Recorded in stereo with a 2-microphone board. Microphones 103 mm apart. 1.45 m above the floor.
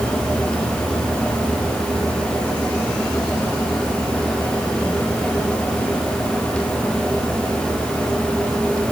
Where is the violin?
I don't hear a violin.